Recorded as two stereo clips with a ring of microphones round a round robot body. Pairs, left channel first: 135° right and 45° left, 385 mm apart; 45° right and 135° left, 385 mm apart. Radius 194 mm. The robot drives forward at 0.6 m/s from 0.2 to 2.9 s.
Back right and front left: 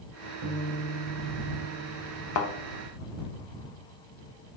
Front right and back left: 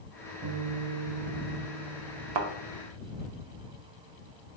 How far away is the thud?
About 0.5 m.